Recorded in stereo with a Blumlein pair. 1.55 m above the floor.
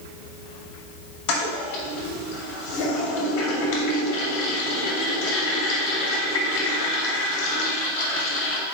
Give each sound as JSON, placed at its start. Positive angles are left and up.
{"t": 1.3, "sound": "a toilet flushing", "azimuth_deg": 40, "distance_m": 2.0}